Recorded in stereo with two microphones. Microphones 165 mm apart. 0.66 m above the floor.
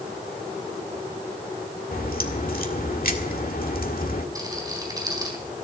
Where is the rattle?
20° right (ahead or behind), 4 m.